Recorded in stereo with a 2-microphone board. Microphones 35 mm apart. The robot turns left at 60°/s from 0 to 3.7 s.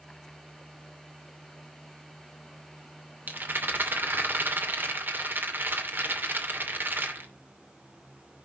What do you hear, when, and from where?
3.3 s a rattle: 60° right (ahead or behind), 2.5 m; by 7.3 s 75° right (ahead or behind), 2.5 m